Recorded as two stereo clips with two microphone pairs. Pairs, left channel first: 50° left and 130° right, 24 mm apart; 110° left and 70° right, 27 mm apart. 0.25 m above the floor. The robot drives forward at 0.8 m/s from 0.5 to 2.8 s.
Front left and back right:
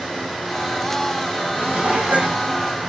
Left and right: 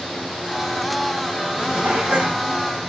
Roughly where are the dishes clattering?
Right.